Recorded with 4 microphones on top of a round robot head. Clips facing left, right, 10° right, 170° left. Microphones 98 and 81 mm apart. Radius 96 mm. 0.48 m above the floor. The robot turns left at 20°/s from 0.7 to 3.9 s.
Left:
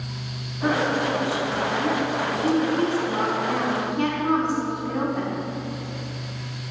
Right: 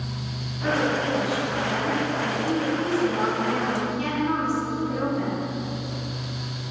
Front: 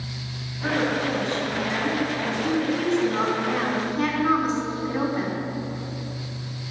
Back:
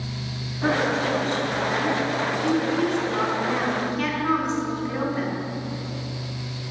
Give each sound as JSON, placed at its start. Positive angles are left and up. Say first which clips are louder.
{"t": 0.6, "sound": "a woman speaking", "louder": "left 1 dB, back 2 dB", "azimuth_deg": 140, "distance_m": 4.0}